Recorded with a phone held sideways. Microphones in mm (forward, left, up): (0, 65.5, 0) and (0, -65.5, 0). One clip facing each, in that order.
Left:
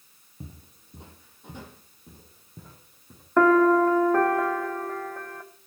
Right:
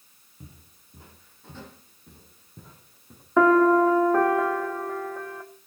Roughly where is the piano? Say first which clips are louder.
Even; centre.